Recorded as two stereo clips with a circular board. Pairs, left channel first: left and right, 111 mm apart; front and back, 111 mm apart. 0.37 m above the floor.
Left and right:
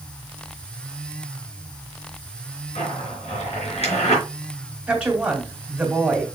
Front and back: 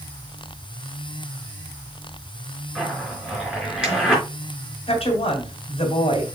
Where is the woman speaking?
10° right, 2.5 m.